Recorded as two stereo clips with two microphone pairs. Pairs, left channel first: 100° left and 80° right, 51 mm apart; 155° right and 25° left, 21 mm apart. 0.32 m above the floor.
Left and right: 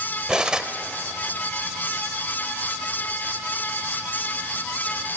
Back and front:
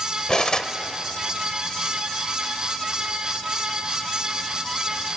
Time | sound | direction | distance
0.3 | cutlery clinking | 145° right | 0.6 m